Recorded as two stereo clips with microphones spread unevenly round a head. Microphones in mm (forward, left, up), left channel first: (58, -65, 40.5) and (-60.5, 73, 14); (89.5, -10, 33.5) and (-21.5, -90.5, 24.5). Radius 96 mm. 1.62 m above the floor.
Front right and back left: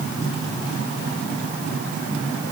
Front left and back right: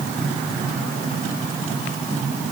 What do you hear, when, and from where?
Only background noise.